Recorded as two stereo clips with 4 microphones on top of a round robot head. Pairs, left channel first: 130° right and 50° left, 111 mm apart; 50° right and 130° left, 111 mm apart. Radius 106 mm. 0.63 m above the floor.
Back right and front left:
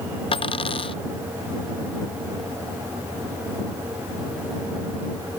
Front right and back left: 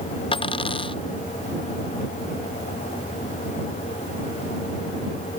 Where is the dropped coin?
90° right.